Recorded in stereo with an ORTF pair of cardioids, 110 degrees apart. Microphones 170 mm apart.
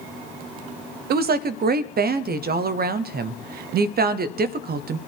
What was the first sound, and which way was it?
A woman speaking, 60° right.